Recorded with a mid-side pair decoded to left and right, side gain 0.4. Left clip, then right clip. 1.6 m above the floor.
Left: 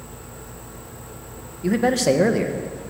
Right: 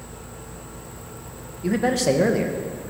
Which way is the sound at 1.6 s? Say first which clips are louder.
Left 2 dB; 15° left.